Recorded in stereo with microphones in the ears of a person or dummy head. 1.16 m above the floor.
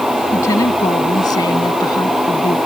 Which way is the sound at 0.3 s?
20° left (ahead or behind).